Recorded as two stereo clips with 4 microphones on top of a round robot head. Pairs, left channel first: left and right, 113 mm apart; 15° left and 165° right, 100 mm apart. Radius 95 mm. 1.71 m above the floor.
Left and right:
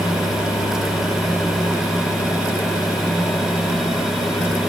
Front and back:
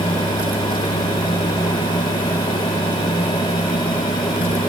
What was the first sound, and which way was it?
Only background noise.